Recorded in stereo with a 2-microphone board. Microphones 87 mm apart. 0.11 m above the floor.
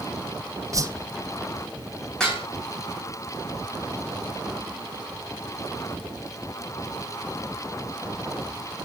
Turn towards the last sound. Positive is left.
turn(degrees=10)  # may be behind; listen again after turning